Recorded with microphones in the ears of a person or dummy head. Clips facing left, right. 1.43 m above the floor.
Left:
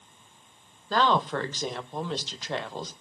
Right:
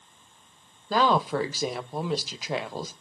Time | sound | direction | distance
0.9 | a woman speaking | 10° right (ahead or behind) | 0.8 m